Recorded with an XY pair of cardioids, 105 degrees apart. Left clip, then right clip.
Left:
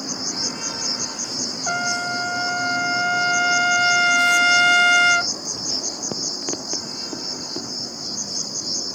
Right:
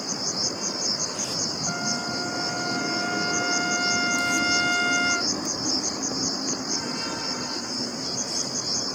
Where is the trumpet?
65° left.